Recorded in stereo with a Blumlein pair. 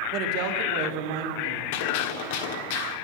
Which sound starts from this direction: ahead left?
A gunshot, at 1.7 s.